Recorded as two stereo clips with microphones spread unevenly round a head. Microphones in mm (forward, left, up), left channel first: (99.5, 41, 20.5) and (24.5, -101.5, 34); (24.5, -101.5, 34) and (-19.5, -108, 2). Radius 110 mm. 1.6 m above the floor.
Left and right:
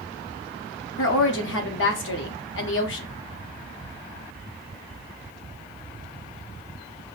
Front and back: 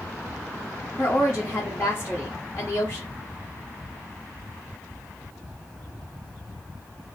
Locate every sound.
1.0 s a woman speaking: 65° left, 0.5 m